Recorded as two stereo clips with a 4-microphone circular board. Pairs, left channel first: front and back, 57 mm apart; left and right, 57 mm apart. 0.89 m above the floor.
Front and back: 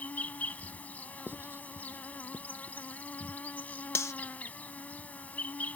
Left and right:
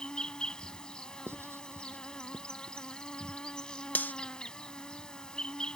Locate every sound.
0.0 s an insect: 30° left
1.3 s writing: 130° right
4.0 s cutlery clinking: 30° left